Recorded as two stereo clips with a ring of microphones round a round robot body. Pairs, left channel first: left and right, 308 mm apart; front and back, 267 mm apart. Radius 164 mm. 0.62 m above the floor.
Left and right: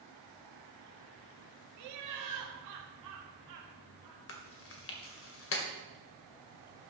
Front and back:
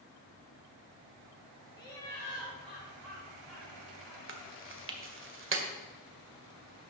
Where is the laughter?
75° right, 1.2 m; by 4.2 s 95° right, 3 m.